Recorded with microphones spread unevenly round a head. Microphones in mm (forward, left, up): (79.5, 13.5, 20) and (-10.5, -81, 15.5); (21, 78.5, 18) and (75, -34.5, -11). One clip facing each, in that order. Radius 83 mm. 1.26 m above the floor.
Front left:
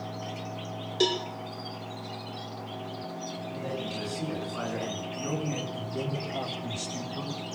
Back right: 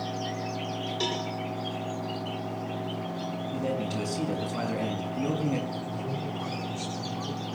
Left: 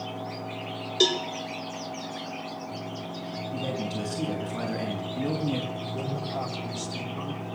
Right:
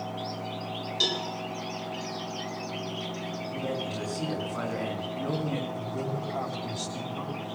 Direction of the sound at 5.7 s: 35° left.